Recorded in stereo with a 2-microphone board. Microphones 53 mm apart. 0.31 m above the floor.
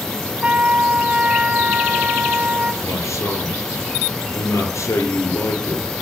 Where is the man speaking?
70° left (ahead or behind), 6.5 m.